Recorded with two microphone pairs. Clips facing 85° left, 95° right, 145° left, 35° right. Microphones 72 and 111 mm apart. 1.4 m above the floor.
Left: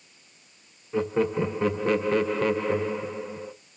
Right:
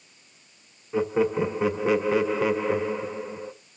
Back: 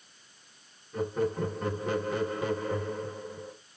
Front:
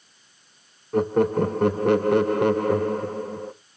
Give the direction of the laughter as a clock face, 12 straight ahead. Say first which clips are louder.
Right 1 dB, front 10 dB; 12 o'clock.